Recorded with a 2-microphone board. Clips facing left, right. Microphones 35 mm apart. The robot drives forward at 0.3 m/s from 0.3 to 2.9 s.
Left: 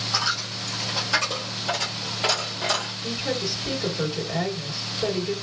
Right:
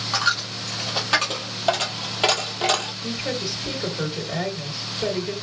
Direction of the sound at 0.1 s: 50° right (ahead or behind).